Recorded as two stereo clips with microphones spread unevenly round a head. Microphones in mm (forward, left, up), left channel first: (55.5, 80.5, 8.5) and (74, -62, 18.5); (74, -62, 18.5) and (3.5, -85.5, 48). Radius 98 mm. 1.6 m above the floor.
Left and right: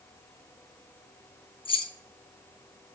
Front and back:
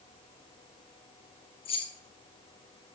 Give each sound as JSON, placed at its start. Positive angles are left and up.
{"t": 1.6, "sound": "keys jangling", "azimuth_deg": 45, "distance_m": 1.4}